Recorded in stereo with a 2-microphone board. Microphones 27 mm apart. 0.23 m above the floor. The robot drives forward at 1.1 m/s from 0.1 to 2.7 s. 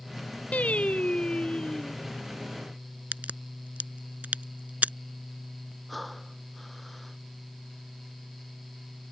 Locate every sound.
0.5 s singing: 60° left (ahead or behind); by 1.9 s 30° left (ahead or behind)
3.1 s a crack: 70° right (ahead or behind)
5.9 s breathing: 5° left (ahead or behind)